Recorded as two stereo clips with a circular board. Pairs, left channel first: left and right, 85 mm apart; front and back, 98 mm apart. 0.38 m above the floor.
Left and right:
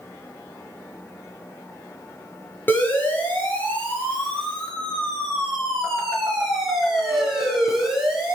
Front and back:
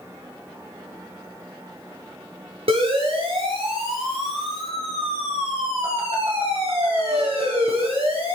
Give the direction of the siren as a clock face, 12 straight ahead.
7 o'clock.